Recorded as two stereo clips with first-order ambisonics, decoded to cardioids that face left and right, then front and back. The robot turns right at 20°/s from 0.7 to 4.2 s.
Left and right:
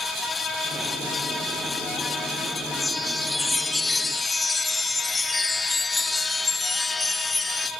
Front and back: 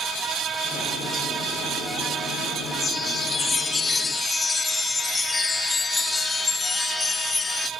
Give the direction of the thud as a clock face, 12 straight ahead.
No thud in this recording.